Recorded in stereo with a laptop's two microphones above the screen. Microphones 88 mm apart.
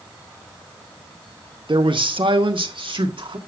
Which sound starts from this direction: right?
A man speaking, at 1.7 s.